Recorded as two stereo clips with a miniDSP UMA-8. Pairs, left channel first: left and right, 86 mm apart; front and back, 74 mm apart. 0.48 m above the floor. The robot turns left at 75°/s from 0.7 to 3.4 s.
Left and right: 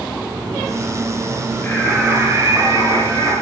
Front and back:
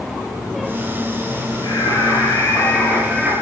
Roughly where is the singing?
Ahead.